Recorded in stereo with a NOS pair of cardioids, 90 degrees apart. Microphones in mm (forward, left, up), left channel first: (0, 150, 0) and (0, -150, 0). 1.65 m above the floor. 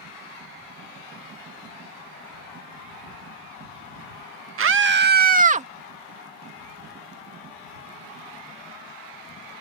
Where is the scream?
45° right; by 5.7 s 20° right.